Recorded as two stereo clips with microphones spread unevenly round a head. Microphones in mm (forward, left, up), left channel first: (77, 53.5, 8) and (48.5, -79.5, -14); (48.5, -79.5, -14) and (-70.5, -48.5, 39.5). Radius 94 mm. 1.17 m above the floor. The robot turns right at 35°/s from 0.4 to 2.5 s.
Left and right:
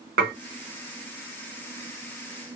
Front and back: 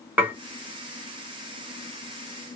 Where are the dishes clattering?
125° right, 0.8 m.